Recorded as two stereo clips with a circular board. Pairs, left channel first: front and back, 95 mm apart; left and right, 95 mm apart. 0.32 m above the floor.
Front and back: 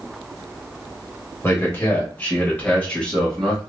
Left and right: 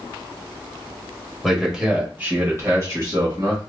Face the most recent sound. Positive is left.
turn(degrees=-80)